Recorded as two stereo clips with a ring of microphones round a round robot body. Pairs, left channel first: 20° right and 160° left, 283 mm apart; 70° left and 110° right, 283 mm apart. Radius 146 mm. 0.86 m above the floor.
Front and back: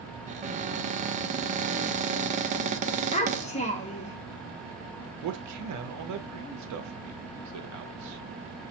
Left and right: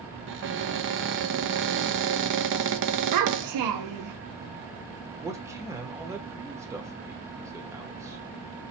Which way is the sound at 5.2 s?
170° left.